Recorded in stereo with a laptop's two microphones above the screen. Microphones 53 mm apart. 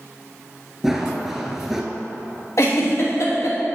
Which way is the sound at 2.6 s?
60° left (ahead or behind).